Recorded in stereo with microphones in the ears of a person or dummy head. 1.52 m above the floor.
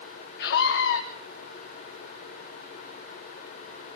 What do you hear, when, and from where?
0.4 s a scream: 65° left (ahead or behind), 1.9 m